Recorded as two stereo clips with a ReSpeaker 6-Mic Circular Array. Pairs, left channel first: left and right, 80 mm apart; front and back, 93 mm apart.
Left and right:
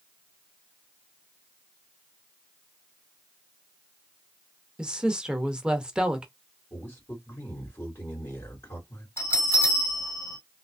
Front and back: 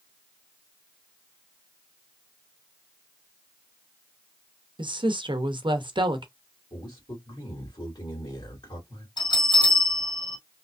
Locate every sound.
4.8 s a woman speaking: 170° right, 0.7 m
6.7 s a man speaking: 35° left, 1.9 m
9.2 s a bell: 35° left, 2 m